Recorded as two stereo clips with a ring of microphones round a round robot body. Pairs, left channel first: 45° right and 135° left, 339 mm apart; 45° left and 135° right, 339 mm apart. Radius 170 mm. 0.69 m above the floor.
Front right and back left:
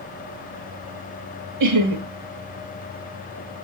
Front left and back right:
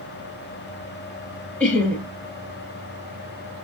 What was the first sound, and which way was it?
Laughter, 130° left.